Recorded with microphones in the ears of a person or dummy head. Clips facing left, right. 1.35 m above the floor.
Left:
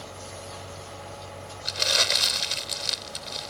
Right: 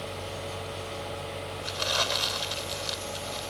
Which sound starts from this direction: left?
Crumpling, at 1.6 s.